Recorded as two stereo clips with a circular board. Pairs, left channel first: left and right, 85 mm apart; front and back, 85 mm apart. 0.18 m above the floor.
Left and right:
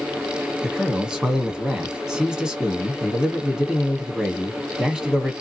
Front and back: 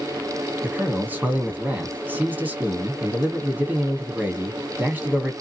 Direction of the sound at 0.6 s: 160° right.